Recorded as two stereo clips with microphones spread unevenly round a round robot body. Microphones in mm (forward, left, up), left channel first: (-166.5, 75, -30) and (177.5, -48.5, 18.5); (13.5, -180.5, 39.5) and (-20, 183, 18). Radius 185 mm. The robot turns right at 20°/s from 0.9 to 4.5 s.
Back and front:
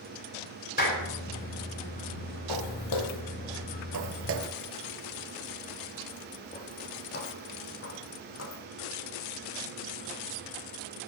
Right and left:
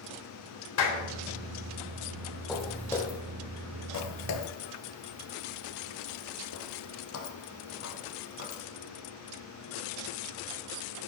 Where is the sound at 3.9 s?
45° right, 1.4 m; by 8.6 s 140° right, 3.5 m.